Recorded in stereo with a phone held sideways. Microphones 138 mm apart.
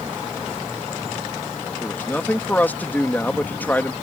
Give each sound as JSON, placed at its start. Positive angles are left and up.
{"t": 1.8, "sound": "a man speaking", "side_deg": 15}